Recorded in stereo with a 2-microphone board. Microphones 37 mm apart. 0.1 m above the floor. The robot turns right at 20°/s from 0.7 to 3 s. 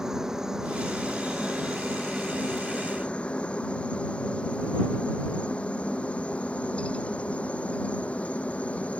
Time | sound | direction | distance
0.0 | a helicopter | 15° right (ahead or behind) | ?